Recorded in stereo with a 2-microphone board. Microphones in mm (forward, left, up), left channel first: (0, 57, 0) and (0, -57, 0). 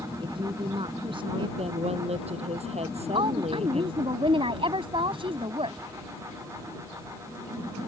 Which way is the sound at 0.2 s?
50° right (ahead or behind).